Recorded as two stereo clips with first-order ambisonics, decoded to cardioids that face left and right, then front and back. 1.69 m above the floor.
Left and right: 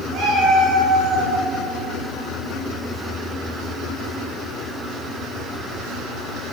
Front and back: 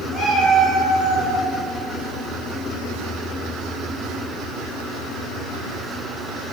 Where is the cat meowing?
75° right, 1.9 m.